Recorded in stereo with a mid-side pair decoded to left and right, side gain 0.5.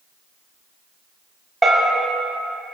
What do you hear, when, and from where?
1.6 s a bell: 15° right, 4.5 m